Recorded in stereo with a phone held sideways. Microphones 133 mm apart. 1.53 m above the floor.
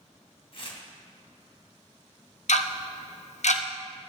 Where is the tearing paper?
50° left (ahead or behind), 2.5 m.